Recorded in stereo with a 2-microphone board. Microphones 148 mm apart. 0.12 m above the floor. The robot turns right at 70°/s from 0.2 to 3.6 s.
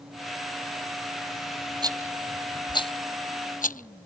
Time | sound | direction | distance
1.8 | a rattle | 30° right (ahead or behind) | ?